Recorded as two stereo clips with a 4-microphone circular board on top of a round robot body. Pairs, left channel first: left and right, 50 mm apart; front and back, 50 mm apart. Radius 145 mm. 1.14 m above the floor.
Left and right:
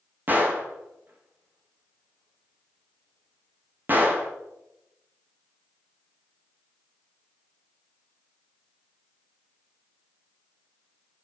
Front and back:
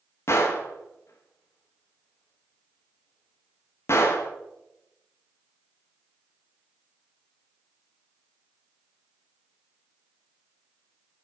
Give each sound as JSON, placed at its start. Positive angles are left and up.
{"t": 0.3, "sound": "a gunshot", "azimuth_deg": -35, "distance_m": 1.4}